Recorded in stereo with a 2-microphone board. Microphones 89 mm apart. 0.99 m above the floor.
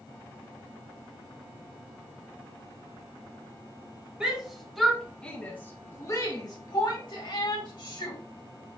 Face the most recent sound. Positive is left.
turn(degrees=65)  # may be behind; listen again after turning